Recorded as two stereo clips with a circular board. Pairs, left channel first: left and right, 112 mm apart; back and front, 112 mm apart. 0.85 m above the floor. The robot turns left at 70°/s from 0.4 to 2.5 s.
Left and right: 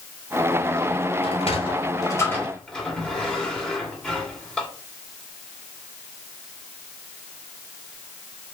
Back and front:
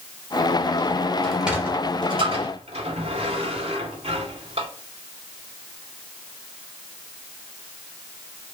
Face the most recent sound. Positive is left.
turn(degrees=10)